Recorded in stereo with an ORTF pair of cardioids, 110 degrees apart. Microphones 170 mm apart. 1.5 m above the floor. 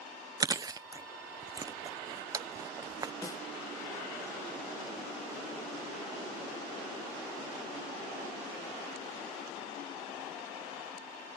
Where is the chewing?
20° right.